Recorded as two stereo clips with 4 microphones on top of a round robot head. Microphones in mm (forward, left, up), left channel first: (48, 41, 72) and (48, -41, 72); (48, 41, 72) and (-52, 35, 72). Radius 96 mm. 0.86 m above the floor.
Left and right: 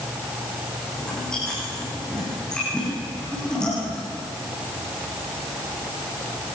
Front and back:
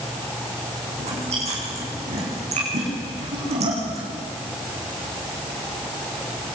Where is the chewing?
175° left, 9 m.